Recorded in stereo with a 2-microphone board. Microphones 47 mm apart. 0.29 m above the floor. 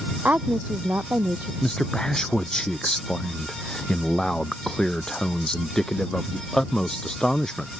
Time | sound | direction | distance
0.2 | a woman speaking | 35° right (ahead or behind) | ?
1.6 | a man speaking | 15° left (ahead or behind) | ?